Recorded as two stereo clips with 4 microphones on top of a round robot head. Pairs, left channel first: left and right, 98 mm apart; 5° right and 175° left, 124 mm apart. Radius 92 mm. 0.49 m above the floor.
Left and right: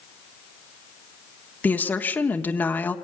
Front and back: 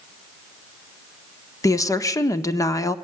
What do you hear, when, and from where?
1.6 s a woman speaking: 35° left, 1.3 m